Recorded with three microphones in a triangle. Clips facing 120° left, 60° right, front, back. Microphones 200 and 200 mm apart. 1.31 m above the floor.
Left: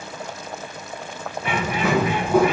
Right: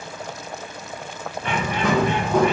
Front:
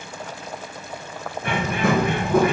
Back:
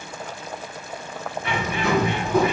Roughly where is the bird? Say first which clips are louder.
Even, front 3 dB; ahead left.